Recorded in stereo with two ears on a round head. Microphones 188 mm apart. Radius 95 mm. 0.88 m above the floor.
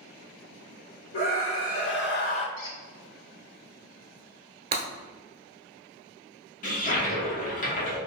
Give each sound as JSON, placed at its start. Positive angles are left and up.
{"t": 1.1, "sound": "a scream", "side_deg": 60, "distance_m": 1.9}
{"t": 2.6, "sound": "a squeak", "side_deg": 65, "distance_m": 1.2}
{"t": 4.7, "sound": "breaking glass", "side_deg": -30, "distance_m": 0.9}
{"t": 6.6, "sound": "a toilet flushing", "side_deg": 40, "distance_m": 1.1}